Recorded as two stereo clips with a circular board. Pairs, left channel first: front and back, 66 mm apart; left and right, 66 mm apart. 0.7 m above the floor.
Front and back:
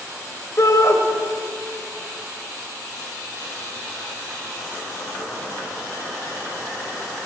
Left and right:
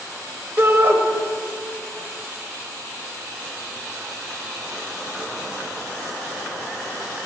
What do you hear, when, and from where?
0.6 s a shout: 35° right, 3 m